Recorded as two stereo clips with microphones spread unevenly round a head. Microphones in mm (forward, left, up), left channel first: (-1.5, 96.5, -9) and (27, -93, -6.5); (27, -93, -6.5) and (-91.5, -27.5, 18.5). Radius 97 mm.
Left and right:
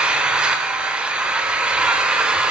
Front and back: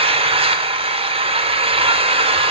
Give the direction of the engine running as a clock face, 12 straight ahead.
6 o'clock.